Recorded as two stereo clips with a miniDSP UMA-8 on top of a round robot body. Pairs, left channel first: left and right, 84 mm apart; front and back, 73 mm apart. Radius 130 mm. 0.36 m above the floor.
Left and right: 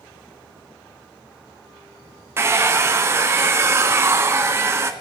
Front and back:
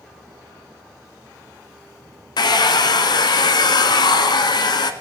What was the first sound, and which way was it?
A hair dryer, 30° right.